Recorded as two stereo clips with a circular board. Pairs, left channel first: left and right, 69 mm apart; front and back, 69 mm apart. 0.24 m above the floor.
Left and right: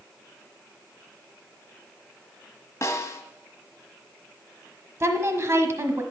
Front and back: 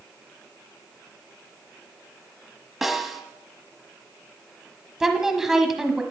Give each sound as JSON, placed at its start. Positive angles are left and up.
{"t": 2.8, "sound": "a snare drum", "azimuth_deg": 95, "distance_m": 1.3}
{"t": 5.0, "sound": "a woman speaking", "azimuth_deg": -100, "distance_m": 1.2}